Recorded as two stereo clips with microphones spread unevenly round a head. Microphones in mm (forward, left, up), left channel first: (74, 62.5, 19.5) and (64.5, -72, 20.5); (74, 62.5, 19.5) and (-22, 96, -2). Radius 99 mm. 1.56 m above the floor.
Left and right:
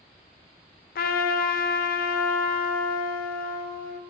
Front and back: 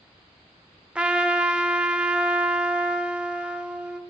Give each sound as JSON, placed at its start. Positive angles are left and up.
{"t": 0.9, "sound": "a trumpet", "azimuth_deg": 80, "distance_m": 0.5}